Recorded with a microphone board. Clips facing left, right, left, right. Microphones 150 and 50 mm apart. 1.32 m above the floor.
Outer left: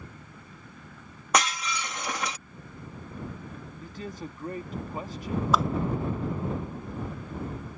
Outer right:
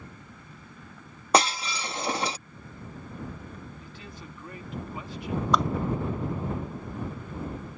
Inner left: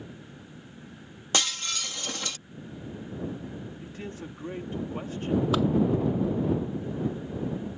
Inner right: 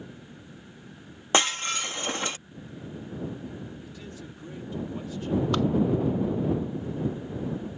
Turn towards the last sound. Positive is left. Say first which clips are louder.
# even, even
turn(degrees=0)  # may be behind; listen again after turning